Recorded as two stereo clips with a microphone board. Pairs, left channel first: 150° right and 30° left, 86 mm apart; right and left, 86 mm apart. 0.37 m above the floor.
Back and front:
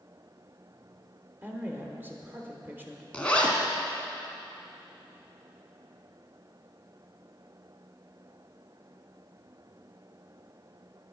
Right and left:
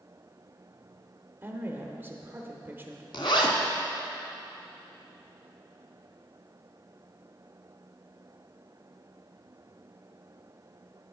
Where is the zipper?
75° right, 1.0 m.